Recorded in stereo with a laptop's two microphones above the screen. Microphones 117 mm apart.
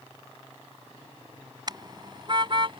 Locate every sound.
1.7 s a car horn: 35° right (ahead or behind); by 2.8 s 45° right (ahead or behind)